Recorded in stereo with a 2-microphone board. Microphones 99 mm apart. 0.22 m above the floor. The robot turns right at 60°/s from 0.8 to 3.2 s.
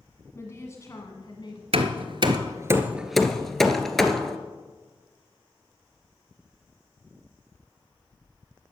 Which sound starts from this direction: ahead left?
A woman speaking, at 0.3 s.